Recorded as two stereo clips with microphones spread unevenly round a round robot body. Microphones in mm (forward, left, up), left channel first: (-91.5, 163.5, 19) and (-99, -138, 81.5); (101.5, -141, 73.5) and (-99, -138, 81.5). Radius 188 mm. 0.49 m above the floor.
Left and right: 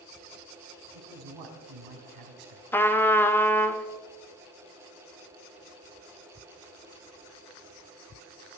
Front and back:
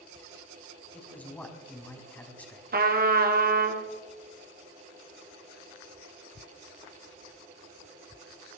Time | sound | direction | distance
0.9 | a man speaking | 85° right | 4 m
2.7 | a trumpet | 160° left | 1.8 m